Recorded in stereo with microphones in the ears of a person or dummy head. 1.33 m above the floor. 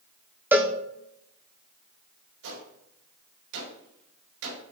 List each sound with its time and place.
0.5 s a cowbell: 10° right (ahead or behind), 1.0 m
2.4 s a gunshot: 80° right, 5 m